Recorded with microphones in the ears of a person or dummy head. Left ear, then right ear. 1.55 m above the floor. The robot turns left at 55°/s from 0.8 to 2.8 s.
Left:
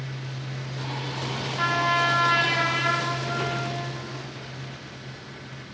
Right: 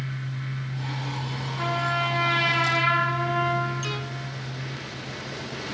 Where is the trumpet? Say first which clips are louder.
Left 3 dB; 60° left, 7 m; by 4.0 s 5° right, 7 m.